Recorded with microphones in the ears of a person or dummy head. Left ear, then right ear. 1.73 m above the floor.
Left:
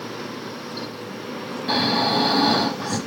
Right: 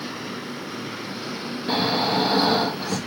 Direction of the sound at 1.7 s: Centre (ahead or behind).